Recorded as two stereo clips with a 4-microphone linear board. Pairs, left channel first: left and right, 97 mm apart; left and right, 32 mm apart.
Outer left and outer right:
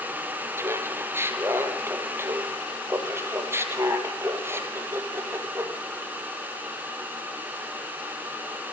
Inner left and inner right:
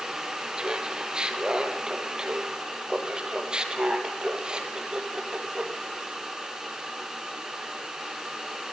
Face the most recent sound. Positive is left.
turn(degrees=-25)  # may be behind; listen again after turning